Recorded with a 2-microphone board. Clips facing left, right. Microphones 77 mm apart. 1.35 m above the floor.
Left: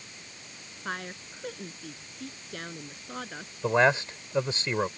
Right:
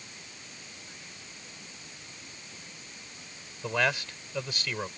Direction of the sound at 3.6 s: 25° left (ahead or behind).